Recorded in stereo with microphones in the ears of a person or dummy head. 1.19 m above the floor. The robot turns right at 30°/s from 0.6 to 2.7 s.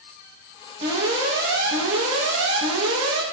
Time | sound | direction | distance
0.8 | an alarm | 145° right | 3 m